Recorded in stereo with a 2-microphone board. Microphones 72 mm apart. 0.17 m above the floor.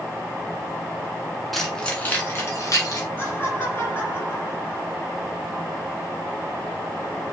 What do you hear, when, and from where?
1.5 s keys jangling: 5° left (ahead or behind), 1.5 m; by 3.0 s 55° left (ahead or behind), 1.9 m
3.2 s laughter: 30° left (ahead or behind), 3 m